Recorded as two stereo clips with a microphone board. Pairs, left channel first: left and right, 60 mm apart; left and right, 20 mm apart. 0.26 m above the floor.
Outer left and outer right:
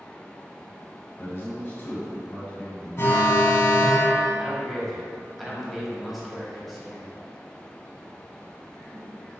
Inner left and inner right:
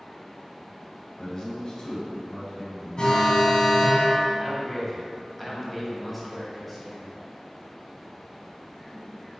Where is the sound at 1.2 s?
35° left (ahead or behind), 1.7 m; by 3.4 s 20° left (ahead or behind), 2.5 m.